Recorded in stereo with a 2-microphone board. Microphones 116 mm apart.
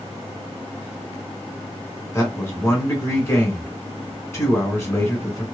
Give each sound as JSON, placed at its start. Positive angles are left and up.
{"t": 2.1, "sound": "a man speaking", "side_deg": 25, "distance_m": 1.3}